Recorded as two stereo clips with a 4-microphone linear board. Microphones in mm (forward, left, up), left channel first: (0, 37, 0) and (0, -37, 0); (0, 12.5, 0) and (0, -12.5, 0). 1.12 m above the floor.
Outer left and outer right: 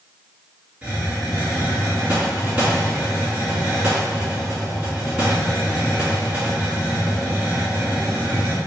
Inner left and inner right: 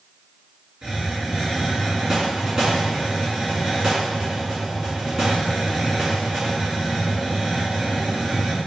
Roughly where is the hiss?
Centre.